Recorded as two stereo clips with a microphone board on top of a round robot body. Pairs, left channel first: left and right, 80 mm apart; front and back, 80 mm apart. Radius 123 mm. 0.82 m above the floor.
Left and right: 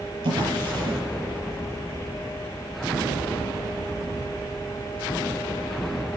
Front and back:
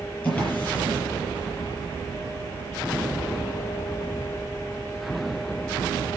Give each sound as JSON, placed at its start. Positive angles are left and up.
{"t": 0.2, "sound": "a drawer", "azimuth_deg": -70, "distance_m": 7.0}